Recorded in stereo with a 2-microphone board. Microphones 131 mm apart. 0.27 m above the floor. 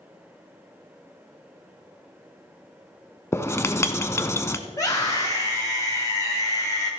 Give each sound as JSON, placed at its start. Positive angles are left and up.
{"t": 3.3, "sound": "writing", "side_deg": 20, "distance_m": 0.7}
{"t": 4.7, "sound": "a scream", "side_deg": 25, "distance_m": 1.7}